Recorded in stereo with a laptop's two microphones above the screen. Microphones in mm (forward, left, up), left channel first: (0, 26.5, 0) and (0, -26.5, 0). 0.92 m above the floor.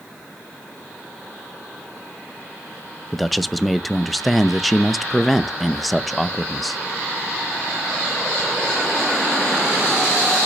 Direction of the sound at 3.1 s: Centre (ahead or behind).